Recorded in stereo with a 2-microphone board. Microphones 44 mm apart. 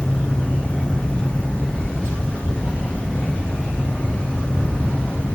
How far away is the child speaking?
No child speaking in this recording.